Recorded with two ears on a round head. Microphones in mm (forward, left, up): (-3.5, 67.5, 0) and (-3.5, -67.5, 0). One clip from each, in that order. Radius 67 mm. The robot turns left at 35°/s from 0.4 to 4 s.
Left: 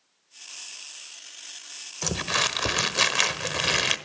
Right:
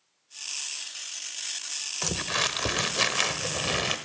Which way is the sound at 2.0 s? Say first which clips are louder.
Left 3 dB; 175° right.